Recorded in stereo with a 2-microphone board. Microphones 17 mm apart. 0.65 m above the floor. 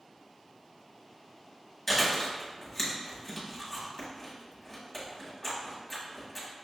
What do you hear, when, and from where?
1.9 s chewing: 10° left (ahead or behind), 1.4 m